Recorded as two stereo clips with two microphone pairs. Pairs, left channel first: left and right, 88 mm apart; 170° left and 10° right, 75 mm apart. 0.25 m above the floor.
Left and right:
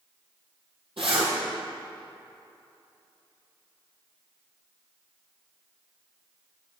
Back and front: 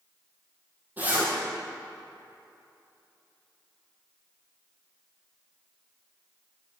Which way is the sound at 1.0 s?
75° right.